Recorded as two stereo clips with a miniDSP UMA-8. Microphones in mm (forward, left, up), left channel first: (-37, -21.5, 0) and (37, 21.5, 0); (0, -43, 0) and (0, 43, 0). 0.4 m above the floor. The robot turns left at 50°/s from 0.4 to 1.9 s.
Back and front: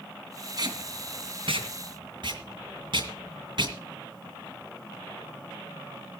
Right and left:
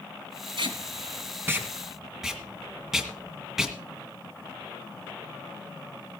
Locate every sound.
0.6 s tape being pulled: 70° left, 2 m; by 3.8 s 5° left, 2 m